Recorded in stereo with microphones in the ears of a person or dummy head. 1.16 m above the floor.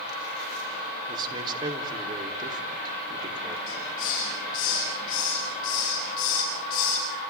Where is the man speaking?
20° right (ahead or behind), 4 m.